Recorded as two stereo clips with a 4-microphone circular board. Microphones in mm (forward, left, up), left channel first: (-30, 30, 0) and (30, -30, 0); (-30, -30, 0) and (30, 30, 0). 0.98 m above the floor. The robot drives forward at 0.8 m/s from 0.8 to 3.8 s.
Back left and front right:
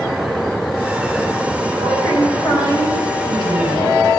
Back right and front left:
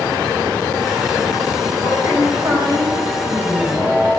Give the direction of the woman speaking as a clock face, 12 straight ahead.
9 o'clock.